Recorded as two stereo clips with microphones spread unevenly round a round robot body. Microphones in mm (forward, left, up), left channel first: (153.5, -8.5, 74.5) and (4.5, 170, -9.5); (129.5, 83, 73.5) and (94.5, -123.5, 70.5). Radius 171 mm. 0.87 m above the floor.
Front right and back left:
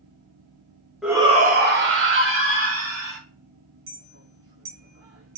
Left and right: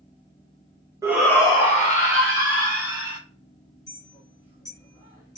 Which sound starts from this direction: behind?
A shout, at 1.0 s.